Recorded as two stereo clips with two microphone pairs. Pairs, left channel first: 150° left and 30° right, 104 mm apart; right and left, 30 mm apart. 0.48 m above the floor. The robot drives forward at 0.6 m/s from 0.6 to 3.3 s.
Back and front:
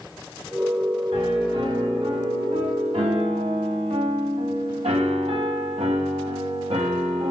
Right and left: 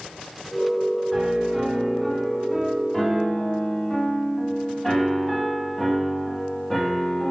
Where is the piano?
10° right, 2.5 m; by 7.3 s 25° right, 1.2 m.